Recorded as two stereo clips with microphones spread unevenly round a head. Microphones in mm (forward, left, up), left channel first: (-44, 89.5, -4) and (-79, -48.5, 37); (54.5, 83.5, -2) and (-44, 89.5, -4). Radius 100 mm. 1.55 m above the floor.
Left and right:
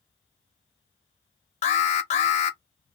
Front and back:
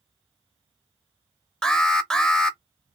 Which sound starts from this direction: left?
An alarm, at 1.6 s.